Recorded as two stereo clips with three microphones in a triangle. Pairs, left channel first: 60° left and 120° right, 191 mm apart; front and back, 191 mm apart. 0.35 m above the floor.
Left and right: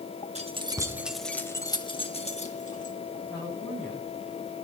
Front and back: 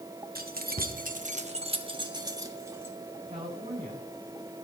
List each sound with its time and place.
0.3 s keys jangling: 165° right, 1.2 m; by 3.0 s 105° left, 2 m
3.2 s a woman speaking: 125° left, 4 m